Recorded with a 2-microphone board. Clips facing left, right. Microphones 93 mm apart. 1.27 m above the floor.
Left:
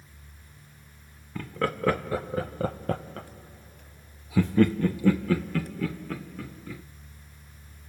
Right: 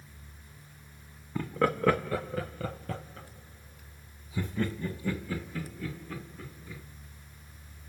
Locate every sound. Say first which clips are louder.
1.4 s laughter: right 1 dB; 10° right (ahead or behind), 0.9 m; by 6.8 s 70° left (ahead or behind), 2.5 m